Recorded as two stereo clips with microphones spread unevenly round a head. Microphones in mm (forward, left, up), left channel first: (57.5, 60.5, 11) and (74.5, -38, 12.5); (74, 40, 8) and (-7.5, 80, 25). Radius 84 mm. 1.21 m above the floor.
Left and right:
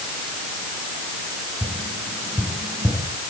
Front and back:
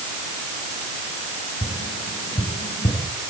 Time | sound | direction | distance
1.6 | tapping | 5° right | 6.5 m